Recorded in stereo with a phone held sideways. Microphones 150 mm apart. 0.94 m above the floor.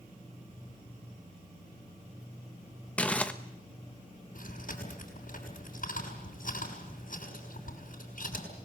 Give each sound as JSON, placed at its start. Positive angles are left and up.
{"t": 3.0, "sound": "crumpling", "side_deg": 10, "distance_m": 1.2}
{"t": 4.3, "sound": "chewing", "side_deg": 70, "distance_m": 7.0}